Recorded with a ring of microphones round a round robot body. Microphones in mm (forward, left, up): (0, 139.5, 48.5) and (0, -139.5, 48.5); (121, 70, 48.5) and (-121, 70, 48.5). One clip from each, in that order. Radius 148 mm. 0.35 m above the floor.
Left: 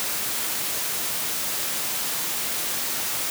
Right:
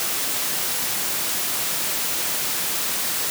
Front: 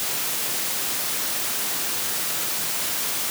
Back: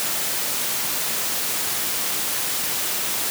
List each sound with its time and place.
Only background noise.